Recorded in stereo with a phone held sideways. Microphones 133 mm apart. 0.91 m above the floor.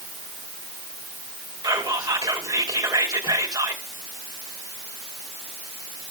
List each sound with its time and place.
1.6 s whispering: 30° right (ahead or behind), 2.5 m